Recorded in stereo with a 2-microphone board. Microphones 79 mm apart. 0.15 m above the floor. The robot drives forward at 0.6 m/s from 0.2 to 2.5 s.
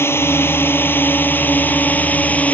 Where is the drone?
30° left (ahead or behind); by 2.5 s 20° left (ahead or behind).